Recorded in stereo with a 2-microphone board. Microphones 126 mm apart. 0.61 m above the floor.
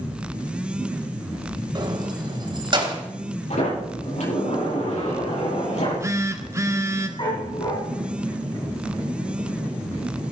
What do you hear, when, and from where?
1.8 s keys jangling: 35° right (ahead or behind), 2 m; by 3.0 s 40° right (ahead or behind), 3 m
3.5 s a sliding door: 65° left (ahead or behind), 9 m
5.7 s a phone buzzing: 25° right (ahead or behind), 1.2 m
7.2 s a dog barking: 40° left (ahead or behind), 7 m